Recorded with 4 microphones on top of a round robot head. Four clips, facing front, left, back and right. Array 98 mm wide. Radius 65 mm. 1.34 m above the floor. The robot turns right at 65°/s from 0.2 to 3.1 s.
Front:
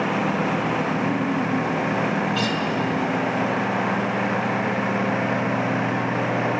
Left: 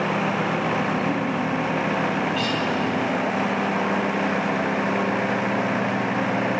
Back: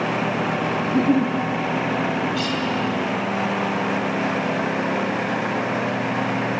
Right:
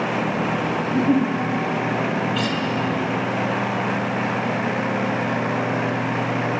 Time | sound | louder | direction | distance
0.8 | a giggle | right 4 dB, back 4 dB | 160° right | 1.3 m
2.4 | a guitar | right 1 dB, even | 60° right | 3 m